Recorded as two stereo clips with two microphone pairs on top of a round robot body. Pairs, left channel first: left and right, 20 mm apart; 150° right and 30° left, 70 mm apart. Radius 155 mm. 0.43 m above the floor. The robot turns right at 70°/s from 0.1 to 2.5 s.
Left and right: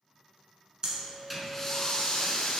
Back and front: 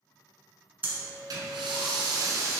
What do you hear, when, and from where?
0.8 s breathing: 35° right, 1.4 m; by 2.6 s 80° left, 1.4 m